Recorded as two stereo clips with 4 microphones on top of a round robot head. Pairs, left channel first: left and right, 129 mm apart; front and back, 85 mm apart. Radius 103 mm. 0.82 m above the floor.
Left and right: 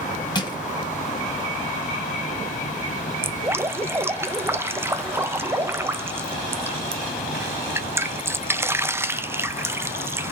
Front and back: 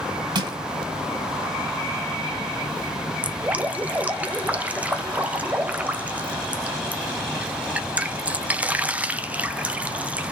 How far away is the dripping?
About 0.7 m.